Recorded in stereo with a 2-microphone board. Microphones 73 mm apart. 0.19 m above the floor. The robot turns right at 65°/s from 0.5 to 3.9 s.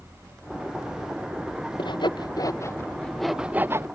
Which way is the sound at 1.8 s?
85° left.